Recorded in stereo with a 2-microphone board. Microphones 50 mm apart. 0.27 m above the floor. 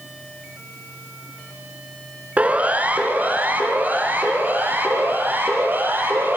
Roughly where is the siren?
Right.